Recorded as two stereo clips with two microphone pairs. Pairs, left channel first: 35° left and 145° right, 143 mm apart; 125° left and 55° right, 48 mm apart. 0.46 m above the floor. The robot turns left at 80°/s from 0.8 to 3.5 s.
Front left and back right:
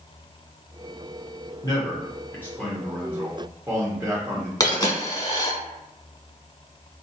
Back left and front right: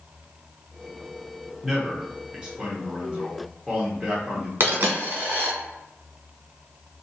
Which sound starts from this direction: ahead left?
A man speaking, at 1.6 s.